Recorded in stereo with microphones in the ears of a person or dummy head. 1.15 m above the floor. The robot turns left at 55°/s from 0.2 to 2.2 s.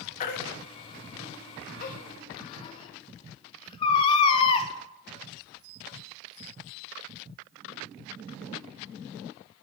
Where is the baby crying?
45° left (ahead or behind), 0.5 m; by 4.7 s 25° left (ahead or behind), 0.5 m.